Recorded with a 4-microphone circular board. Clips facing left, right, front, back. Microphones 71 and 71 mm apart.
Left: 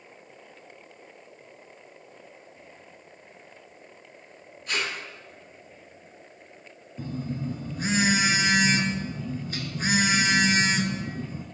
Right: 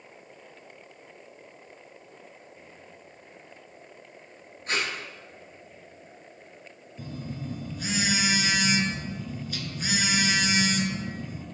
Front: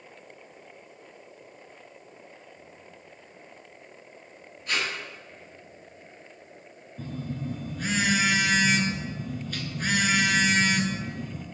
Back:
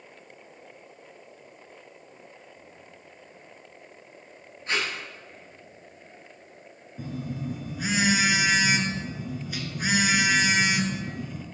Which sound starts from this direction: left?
A phone buzzing, at 7.0 s.